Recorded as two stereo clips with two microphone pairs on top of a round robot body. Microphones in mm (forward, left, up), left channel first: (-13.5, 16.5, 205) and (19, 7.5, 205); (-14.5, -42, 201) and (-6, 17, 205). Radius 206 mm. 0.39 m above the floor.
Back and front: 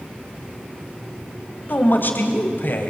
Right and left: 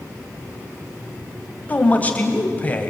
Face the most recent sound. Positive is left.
turn(degrees=-165)